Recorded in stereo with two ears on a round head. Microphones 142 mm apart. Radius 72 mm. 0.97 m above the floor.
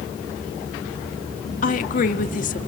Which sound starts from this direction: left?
A woman speaking, at 1.6 s.